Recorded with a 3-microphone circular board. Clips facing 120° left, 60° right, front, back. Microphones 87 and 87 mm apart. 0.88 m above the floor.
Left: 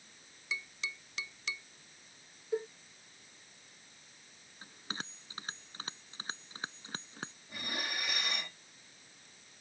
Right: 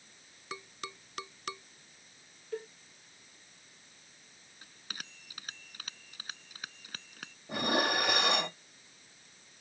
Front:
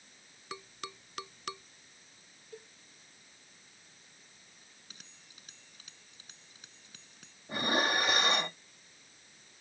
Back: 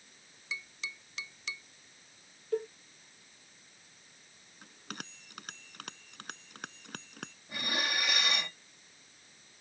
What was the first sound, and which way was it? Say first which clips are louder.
Tapping: left 1 dB, even; 25° right.